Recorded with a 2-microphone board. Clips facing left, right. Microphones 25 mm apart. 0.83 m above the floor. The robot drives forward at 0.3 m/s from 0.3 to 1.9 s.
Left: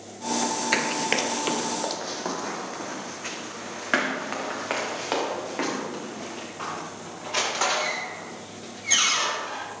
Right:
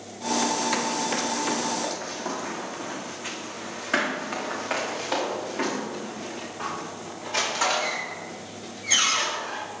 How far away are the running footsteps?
About 0.9 m.